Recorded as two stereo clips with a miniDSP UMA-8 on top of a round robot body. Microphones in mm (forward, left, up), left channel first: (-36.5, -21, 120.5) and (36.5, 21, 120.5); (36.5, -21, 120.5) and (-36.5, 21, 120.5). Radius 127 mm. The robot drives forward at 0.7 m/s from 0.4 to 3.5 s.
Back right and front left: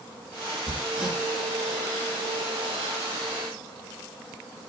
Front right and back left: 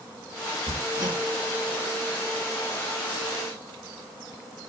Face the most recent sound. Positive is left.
turn(degrees=125)